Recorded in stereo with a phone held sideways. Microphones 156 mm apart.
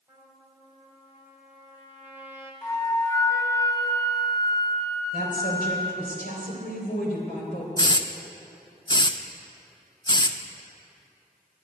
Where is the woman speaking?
70° left (ahead or behind), 3.5 m.